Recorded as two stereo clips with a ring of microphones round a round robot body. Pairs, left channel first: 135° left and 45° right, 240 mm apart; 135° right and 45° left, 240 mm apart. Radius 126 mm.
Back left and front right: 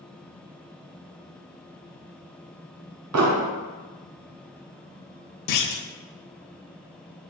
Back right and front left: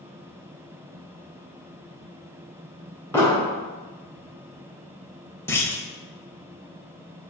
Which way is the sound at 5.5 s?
145° left.